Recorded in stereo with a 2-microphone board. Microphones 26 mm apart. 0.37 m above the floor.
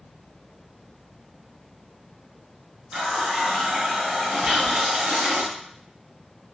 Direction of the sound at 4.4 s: 35° right (ahead or behind).